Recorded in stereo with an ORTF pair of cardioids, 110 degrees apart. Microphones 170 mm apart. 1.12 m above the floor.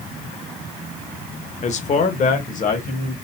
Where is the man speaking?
45° left, 0.9 m; by 3.1 s 50° left, 2 m.